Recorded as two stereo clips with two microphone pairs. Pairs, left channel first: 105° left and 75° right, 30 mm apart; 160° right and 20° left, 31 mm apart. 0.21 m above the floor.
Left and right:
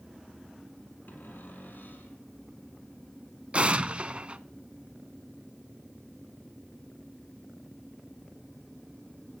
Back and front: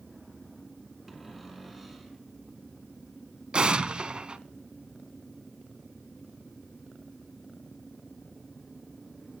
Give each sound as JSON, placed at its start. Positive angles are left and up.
{"t": 1.1, "sound": "a cupboard door", "azimuth_deg": 105, "distance_m": 5.5}
{"t": 3.5, "sound": "an explosion", "azimuth_deg": -35, "distance_m": 1.1}